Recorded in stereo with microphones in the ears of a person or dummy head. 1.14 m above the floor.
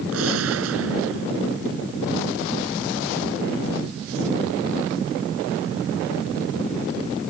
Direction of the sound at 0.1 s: 90° right.